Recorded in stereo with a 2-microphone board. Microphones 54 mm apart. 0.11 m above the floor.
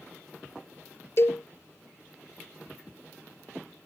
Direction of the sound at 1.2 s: 50° left (ahead or behind).